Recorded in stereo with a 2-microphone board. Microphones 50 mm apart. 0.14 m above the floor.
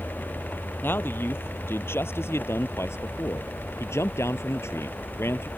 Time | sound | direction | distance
0.8 | a man speaking | 45° left (ahead or behind) | ?